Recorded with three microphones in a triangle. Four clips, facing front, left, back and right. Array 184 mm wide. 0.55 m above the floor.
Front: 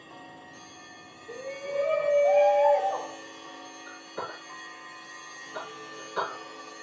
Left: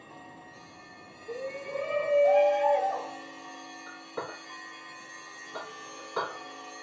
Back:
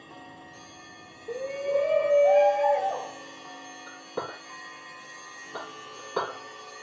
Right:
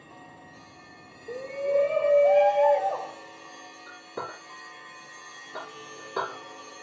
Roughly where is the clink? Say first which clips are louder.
Right 2 dB, back 3 dB; behind right.